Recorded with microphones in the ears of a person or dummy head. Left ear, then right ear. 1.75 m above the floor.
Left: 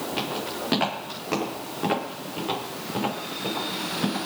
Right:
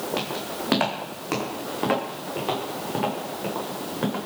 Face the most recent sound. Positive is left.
turn(degrees=-25)  # may be behind; listen again after turning